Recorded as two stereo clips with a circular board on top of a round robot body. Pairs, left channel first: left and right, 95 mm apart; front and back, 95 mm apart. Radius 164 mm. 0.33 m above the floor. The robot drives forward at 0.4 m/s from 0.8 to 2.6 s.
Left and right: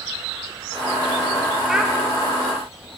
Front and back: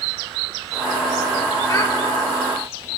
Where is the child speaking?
10° right, 0.6 m; by 1.9 s 15° right, 0.5 m.